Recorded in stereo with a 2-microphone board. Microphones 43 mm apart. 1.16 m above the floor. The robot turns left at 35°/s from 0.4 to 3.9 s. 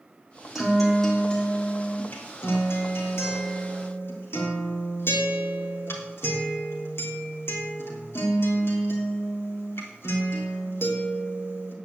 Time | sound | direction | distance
0.6 | a guitar | 175° right | 3 m